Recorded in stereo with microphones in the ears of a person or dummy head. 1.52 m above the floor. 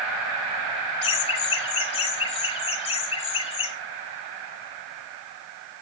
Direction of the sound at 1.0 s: 35° left (ahead or behind).